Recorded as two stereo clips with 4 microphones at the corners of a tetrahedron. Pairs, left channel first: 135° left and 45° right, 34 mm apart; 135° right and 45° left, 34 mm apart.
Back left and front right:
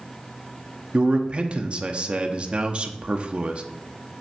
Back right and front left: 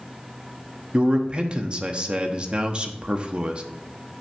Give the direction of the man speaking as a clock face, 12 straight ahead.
12 o'clock.